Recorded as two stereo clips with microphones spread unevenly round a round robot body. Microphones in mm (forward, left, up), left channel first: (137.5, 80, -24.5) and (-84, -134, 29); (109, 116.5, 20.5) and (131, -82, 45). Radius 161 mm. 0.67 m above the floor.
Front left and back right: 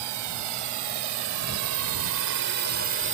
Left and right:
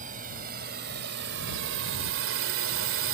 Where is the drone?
150° right; by 3.1 s 80° right.